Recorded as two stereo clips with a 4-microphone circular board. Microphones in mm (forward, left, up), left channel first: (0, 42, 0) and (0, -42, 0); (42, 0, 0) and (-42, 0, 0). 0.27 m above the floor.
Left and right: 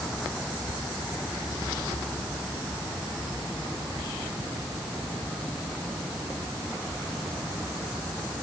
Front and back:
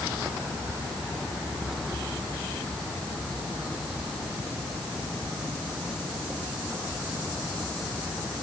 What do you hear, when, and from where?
0.7 s whispering: 115° right